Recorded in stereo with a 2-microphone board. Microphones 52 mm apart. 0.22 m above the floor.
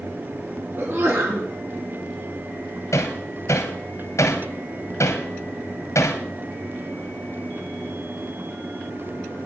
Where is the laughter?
I don't hear laughter.